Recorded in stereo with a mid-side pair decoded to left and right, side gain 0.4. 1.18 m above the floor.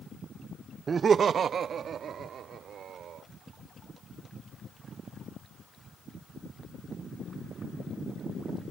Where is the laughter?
45° right; by 3.2 s 70° right.